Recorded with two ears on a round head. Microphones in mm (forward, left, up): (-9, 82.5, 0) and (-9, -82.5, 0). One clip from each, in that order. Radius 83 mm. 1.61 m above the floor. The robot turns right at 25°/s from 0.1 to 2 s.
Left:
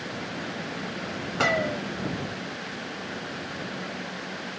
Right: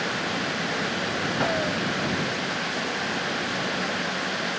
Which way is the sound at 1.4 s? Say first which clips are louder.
Left 4 dB; 65° left (ahead or behind).